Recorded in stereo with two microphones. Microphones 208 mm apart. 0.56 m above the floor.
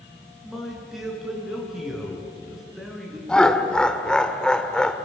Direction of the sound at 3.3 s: 5° left (ahead or behind).